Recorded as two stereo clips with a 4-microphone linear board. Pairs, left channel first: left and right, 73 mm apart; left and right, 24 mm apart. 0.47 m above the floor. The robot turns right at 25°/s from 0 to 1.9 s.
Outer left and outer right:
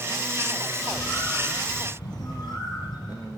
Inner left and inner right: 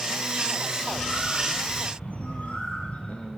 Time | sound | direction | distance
0.7 | a bird | 65° left | 6.5 m